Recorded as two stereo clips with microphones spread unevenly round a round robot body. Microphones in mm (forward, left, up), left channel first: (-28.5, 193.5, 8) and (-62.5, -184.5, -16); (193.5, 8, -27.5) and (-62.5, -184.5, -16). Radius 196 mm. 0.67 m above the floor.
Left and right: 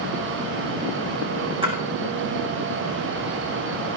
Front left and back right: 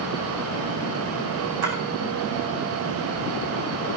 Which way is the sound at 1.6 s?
170° right.